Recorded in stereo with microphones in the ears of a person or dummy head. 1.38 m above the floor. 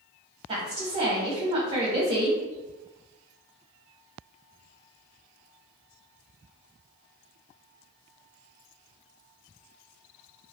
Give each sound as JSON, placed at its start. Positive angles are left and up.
{"t": 0.5, "sound": "a woman speaking", "side_deg": -30, "distance_m": 1.2}